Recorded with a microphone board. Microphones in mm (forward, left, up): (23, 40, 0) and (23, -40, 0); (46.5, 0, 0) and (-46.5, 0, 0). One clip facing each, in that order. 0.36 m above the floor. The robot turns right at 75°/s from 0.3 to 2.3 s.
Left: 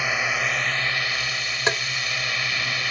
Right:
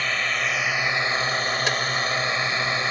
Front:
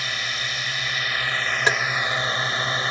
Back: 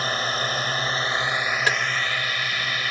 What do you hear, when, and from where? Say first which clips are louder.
0.0 s a drone: left 1 dB, back 5 dB; 165° left; by 2.9 s 45° right
1.7 s tapping: left 6 dB, front 3 dB; 50° left; by 1.8 s 60° left